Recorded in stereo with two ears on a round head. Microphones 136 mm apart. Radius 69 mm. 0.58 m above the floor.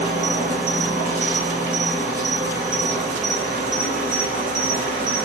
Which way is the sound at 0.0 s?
60° right (ahead or behind).